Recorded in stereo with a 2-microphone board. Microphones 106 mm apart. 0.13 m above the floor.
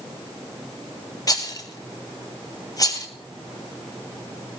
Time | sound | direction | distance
1.3 | a rattle | 35° left (ahead or behind) | 1.3 m